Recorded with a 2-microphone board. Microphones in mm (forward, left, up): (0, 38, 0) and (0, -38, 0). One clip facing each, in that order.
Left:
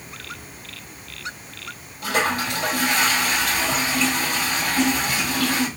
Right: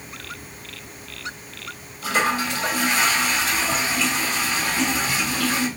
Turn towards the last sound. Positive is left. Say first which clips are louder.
# right 1 dB
turn(degrees=50)  # may be behind; listen again after turning